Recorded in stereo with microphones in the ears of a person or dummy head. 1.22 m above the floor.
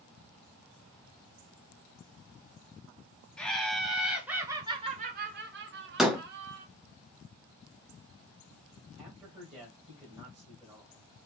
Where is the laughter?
5° left (ahead or behind), 1.2 m; by 6.7 s 60° right (ahead or behind), 1.1 m.